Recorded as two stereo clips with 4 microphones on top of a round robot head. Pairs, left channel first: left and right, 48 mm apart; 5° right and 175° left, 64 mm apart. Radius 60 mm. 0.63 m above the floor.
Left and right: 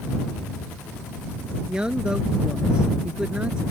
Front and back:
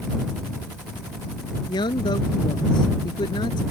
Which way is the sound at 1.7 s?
15° right.